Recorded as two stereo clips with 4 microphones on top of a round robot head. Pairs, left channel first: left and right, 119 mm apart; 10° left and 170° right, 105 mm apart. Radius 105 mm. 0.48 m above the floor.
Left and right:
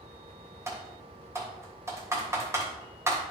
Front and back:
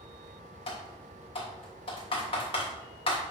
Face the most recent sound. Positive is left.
turn(degrees=-25)